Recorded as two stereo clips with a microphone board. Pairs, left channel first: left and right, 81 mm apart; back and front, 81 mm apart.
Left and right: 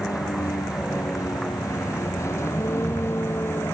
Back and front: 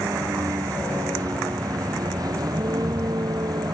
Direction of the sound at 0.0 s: 45° left.